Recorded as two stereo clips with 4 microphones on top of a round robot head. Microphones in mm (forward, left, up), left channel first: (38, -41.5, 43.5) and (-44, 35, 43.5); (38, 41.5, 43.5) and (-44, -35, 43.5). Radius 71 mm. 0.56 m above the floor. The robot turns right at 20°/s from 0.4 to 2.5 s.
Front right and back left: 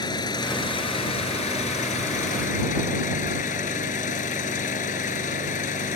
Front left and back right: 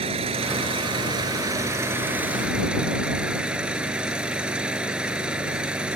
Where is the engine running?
100° right; by 6.0 s 55° right.